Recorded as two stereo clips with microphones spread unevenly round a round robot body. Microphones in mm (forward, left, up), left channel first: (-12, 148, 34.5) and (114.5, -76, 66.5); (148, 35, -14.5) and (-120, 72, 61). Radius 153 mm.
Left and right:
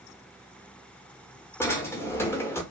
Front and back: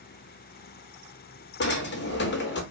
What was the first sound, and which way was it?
A drawer, 40° left.